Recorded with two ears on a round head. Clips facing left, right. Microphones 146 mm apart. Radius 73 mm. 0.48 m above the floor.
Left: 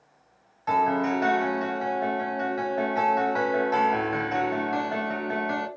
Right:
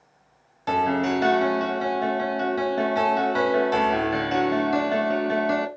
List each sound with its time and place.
0.7 s a piano: 35° right (ahead or behind), 0.7 m